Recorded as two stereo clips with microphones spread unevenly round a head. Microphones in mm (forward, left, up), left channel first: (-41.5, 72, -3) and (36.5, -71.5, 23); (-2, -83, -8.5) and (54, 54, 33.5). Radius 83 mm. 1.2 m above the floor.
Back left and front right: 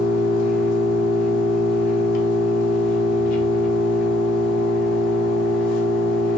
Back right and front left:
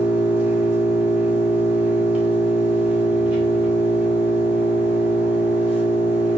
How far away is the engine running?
About 0.9 m.